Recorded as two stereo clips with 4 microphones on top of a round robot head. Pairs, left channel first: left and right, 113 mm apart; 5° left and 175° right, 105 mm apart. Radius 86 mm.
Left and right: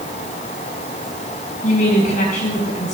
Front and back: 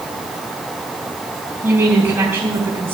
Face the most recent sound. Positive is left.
turn(degrees=115)